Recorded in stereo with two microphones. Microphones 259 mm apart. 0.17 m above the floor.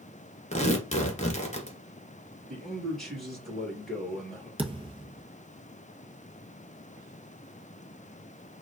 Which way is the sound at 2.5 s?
Centre (ahead or behind).